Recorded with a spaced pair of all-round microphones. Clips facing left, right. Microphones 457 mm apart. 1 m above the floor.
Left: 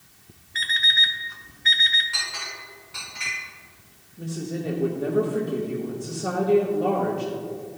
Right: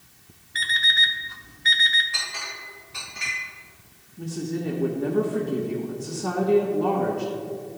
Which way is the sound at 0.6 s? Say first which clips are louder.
Right 2 dB; 55° right (ahead or behind).